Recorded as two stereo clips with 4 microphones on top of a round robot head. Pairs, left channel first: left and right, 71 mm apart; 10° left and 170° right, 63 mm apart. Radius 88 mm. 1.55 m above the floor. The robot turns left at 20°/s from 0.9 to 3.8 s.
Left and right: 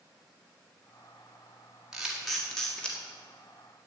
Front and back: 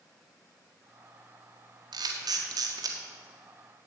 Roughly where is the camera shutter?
Behind.